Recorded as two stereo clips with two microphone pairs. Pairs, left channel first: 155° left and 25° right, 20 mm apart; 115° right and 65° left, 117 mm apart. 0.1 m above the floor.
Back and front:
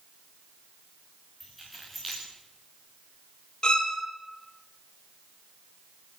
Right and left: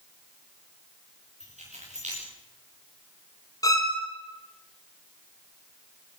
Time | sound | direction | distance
1.4 | keys jangling | 60° left | 8 m
3.6 | a violin | 170° right | 3.5 m